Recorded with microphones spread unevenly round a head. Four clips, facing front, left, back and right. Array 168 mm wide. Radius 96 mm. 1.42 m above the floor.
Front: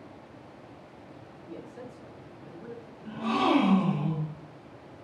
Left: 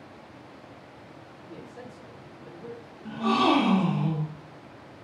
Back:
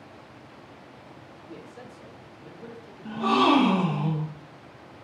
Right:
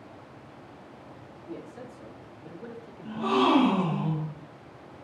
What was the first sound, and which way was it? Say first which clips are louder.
A man speaking: right 3 dB, front 2 dB; 90° right.